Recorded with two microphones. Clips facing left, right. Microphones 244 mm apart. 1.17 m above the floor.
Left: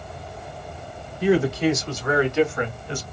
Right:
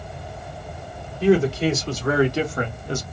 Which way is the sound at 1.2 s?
30° right (ahead or behind).